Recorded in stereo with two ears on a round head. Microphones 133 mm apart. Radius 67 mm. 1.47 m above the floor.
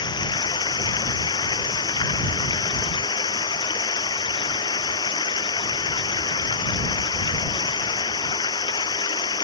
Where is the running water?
30° left (ahead or behind).